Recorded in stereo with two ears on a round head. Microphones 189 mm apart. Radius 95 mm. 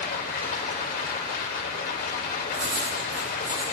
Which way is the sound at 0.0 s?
40° left (ahead or behind).